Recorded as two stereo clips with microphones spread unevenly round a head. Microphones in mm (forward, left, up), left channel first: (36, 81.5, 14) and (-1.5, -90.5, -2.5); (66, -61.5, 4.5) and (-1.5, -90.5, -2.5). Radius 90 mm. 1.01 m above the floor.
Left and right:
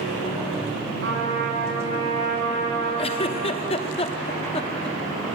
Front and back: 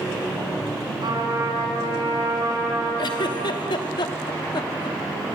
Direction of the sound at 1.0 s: 135° right.